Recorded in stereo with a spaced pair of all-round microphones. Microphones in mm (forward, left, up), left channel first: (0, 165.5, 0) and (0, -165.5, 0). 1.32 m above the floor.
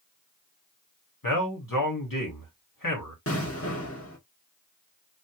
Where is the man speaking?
85° left, 2 m.